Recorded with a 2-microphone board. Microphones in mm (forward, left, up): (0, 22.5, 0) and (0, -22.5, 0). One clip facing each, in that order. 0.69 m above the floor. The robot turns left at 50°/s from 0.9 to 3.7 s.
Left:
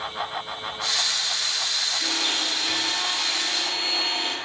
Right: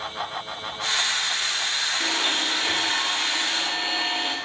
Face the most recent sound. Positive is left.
turn(degrees=-160)